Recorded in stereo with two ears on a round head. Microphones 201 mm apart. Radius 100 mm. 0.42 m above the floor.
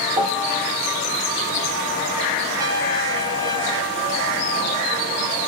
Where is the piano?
20° right (ahead or behind), 2.5 m.